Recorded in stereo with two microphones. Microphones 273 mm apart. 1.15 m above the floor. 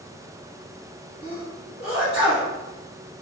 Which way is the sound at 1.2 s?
35° left (ahead or behind).